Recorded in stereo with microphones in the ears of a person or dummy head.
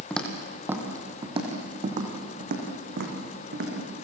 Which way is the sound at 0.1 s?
10° left (ahead or behind).